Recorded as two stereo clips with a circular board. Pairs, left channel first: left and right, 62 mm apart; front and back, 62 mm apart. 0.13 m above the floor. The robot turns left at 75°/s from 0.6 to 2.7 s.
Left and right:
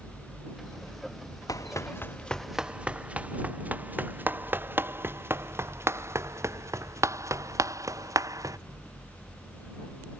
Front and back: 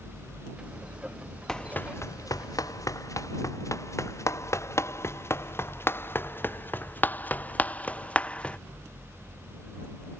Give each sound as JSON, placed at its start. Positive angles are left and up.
{"t": 1.5, "sound": "running footsteps", "azimuth_deg": 80}